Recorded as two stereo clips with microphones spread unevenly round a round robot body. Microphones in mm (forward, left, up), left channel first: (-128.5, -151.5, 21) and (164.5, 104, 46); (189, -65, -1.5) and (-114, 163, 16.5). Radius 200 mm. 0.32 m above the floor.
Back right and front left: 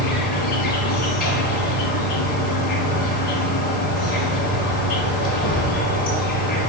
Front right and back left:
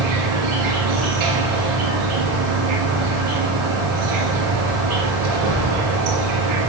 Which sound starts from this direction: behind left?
An insect, at 0.0 s.